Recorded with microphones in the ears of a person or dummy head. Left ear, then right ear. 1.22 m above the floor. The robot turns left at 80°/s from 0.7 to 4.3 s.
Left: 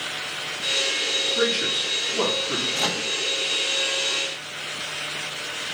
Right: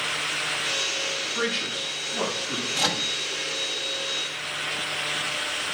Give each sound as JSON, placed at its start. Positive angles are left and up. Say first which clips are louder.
{"t": 1.4, "sound": "a man speaking", "louder": "left 4 dB", "side_deg": -55, "distance_m": 6.0}
{"t": 2.8, "sound": "a microwave", "louder": "even", "side_deg": -5, "distance_m": 0.9}